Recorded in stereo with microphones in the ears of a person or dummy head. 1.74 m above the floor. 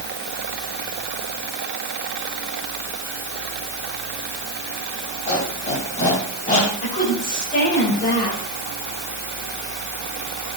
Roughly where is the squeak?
Left.